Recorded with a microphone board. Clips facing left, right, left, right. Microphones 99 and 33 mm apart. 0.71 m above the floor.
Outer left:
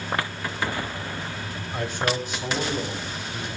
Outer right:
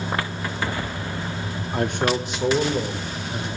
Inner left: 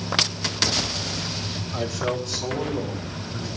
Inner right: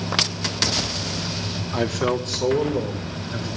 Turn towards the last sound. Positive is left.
turn(degrees=-80)